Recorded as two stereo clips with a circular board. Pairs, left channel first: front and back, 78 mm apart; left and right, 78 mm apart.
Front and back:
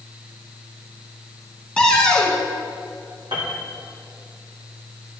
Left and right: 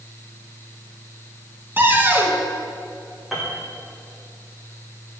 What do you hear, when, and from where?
1.8 s a cupboard door: 70° right, 1.1 m
3.3 s a piano: straight behind, 2 m